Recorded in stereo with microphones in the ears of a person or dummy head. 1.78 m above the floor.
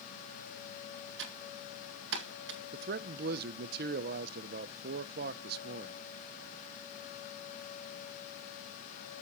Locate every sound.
1.2 s typing on a keyboard: 65° right (ahead or behind), 1.9 m
2.7 s a man speaking: 55° right (ahead or behind), 0.7 m